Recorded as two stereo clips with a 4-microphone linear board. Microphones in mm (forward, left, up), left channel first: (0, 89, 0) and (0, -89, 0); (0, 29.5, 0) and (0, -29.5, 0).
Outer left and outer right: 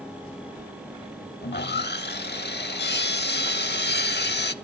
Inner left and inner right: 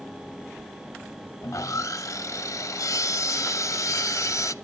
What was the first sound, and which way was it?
Sawing, 70° left (ahead or behind).